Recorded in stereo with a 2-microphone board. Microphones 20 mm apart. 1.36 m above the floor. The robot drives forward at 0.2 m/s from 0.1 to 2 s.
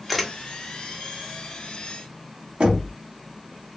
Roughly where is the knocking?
Right.